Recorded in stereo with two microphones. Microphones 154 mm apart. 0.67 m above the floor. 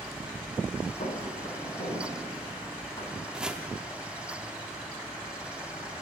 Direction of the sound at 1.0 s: 50° left (ahead or behind).